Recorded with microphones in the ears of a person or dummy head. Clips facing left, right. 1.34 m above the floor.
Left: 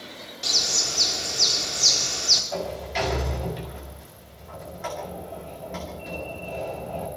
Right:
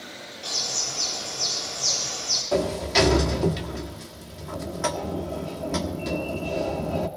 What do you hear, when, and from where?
0.4 s a bird: 30° left (ahead or behind), 4.5 m
2.5 s a sliding door: 80° right, 2 m